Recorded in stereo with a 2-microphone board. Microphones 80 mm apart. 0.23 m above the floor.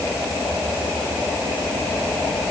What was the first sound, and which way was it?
Only background noise.